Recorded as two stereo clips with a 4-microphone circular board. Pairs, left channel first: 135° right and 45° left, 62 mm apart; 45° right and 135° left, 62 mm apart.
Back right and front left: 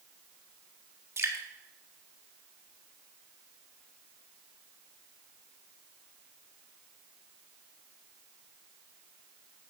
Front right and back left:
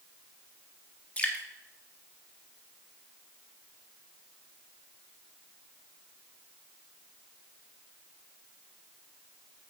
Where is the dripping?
15° left, 1.7 m.